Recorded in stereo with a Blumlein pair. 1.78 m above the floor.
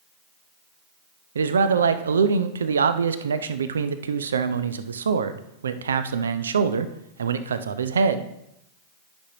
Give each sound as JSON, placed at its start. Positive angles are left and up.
{"t": 1.4, "sound": "a man speaking", "azimuth_deg": -70, "distance_m": 0.5}